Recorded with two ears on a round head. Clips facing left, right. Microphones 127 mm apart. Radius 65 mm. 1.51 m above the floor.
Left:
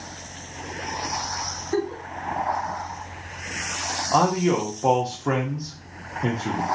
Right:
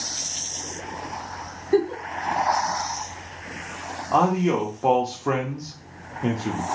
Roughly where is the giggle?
Right.